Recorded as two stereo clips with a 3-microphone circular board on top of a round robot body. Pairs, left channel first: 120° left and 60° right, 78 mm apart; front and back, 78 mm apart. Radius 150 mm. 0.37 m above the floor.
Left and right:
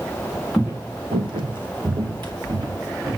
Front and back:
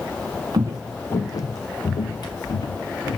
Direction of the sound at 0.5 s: 145° right.